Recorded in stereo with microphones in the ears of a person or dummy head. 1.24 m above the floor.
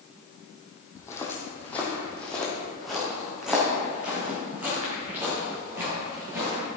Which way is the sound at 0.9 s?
15° left (ahead or behind).